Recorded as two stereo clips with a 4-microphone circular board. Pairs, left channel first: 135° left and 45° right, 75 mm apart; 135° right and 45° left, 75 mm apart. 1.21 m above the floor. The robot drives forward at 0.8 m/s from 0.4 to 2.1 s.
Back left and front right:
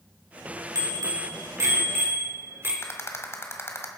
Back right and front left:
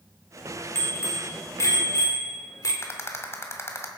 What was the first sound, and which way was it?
A bicycle bell, 75° right.